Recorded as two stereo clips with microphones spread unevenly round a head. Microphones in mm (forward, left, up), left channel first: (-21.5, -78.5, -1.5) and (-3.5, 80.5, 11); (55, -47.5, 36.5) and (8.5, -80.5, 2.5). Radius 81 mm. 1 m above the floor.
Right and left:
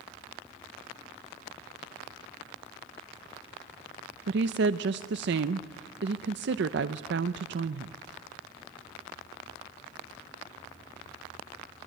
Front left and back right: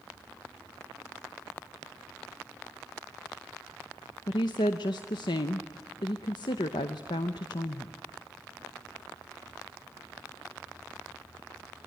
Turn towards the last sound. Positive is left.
turn(degrees=75)